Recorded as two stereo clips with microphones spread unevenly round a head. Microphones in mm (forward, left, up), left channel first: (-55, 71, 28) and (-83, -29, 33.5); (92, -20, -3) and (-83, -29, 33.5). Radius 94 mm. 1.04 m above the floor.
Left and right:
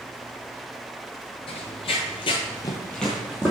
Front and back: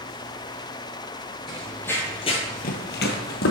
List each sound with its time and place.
1.5 s running footsteps: 100° left, 2 m; by 3.5 s 30° right, 1.8 m